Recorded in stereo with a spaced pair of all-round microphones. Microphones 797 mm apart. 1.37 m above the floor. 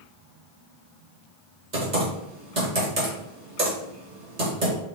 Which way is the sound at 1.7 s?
60° right (ahead or behind).